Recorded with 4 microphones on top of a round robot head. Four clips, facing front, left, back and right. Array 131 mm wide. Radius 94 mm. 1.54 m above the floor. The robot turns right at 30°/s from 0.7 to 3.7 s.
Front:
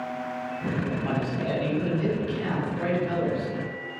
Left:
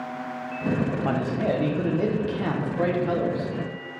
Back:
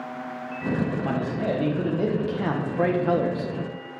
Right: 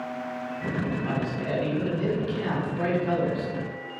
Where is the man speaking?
110° left, 1.5 m; by 3.5 s straight behind, 1.5 m.